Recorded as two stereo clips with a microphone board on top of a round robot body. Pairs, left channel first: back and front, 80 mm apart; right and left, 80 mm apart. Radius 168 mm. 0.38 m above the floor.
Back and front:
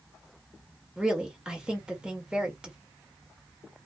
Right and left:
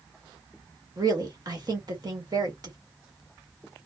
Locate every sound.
1.0 s a woman speaking: 75° left, 1.3 m